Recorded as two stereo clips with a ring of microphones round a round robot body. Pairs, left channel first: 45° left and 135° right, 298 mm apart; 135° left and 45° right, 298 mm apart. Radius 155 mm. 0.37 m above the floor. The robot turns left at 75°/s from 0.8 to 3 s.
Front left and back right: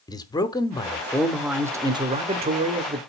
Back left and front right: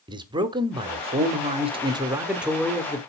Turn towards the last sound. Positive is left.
turn(degrees=-170)